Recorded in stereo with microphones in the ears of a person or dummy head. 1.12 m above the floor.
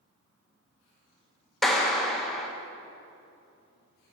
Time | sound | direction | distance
1.6 | a clap | centre (ahead or behind) | 0.9 m